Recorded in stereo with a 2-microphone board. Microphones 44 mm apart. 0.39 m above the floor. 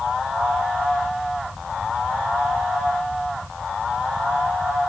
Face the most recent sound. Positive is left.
No sound to turn to.